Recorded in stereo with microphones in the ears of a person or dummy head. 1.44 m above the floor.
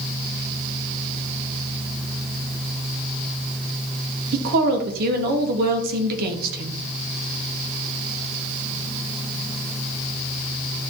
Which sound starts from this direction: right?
A woman speaking, at 4.3 s.